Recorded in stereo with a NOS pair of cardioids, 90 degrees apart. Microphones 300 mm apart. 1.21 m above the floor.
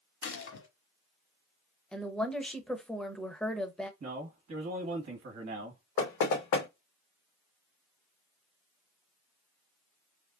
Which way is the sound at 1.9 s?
5° left.